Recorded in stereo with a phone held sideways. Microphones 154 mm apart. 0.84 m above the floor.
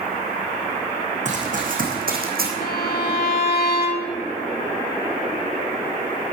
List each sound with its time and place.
1.2 s running footsteps: 50° right (ahead or behind), 3 m; by 2.5 s 70° right (ahead or behind), 2.5 m
2.6 s a violin: 70° left (ahead or behind), 1.3 m